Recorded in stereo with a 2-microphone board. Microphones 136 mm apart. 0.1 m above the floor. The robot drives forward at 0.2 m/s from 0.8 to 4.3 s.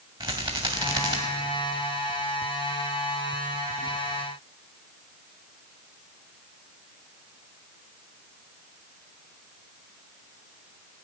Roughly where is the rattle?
Right.